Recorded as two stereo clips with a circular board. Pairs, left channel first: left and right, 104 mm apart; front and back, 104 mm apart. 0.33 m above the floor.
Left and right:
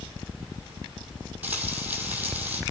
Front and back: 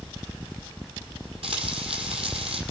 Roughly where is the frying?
Behind.